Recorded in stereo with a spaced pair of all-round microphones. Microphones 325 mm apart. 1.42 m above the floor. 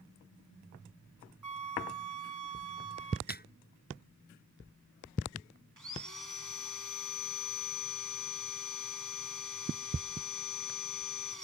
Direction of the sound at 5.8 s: 70° right (ahead or behind).